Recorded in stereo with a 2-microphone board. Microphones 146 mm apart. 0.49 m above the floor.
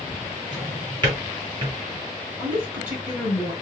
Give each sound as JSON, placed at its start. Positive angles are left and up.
{"t": 0.5, "sound": "a drawer", "side_deg": -35, "distance_m": 3.0}
{"t": 2.4, "sound": "a woman speaking", "side_deg": -20, "distance_m": 4.0}